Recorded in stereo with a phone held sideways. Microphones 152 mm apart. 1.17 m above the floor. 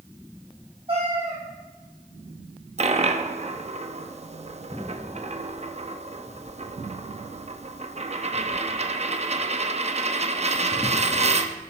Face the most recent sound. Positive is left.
turn(degrees=-45)  # may be behind; listen again after turning